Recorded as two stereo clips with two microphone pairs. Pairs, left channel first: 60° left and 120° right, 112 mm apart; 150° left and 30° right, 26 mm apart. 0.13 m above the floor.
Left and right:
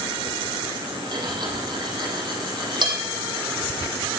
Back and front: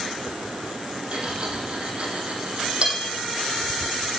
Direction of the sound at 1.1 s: 75° right.